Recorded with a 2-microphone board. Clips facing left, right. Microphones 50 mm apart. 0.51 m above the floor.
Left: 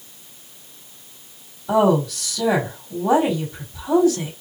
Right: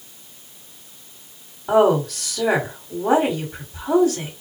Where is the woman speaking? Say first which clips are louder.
Right 1 dB; 45° right (ahead or behind), 1.8 m.